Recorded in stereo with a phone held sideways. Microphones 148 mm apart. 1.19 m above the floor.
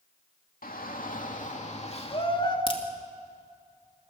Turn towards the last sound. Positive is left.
turn(degrees=35)  # may be behind; listen again after turning